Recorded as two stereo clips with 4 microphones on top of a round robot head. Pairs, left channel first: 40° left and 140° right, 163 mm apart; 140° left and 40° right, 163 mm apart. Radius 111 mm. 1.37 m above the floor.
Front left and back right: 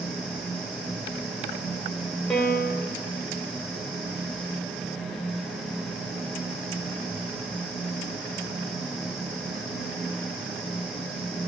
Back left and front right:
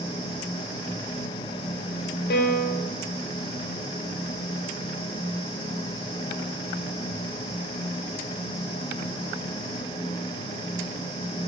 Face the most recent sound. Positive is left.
turn(degrees=130)